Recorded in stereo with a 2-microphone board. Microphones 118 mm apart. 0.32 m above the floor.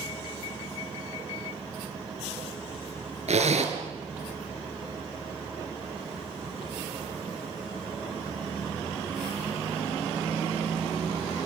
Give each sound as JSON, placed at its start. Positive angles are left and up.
{"t": 3.3, "sound": "a zipper", "side_deg": -70, "distance_m": 2.5}